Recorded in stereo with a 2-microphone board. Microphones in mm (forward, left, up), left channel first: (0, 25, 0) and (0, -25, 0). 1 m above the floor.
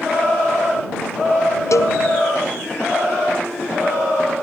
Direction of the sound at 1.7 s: 85° left.